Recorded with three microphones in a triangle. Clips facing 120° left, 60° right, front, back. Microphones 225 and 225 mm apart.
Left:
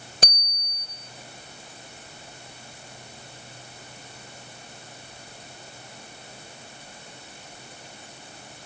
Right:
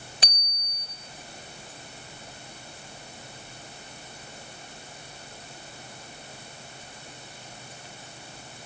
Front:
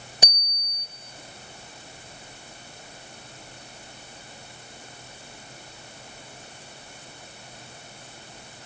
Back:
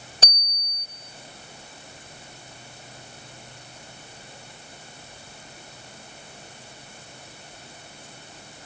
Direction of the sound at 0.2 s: 75° left.